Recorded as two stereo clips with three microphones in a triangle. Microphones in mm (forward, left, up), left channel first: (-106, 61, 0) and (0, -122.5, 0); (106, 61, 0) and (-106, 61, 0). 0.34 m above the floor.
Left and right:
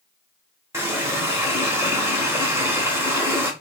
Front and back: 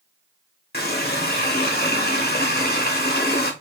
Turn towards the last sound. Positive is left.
turn(degrees=15)